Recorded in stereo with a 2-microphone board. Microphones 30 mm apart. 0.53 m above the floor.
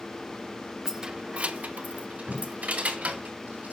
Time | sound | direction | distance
0.8 | keys jangling | 15° right (ahead or behind) | 0.6 m
2.3 | tape being pulled | 80° right | 5.5 m